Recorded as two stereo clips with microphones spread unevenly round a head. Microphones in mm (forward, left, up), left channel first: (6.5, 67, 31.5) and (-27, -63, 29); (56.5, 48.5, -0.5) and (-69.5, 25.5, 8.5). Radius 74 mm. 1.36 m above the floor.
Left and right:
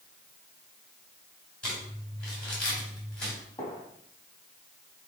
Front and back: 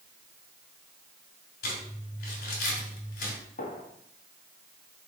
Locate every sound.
1.6 s crumpling: 5° right, 3 m
3.6 s a gunshot: 10° left, 2.0 m